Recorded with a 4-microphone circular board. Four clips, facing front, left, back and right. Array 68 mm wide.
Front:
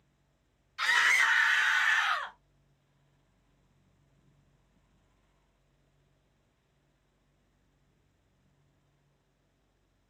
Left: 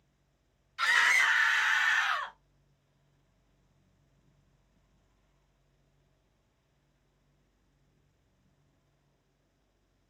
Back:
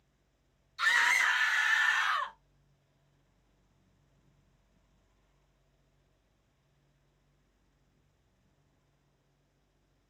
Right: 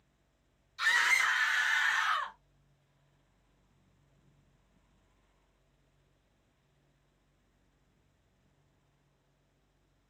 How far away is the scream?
About 3 m.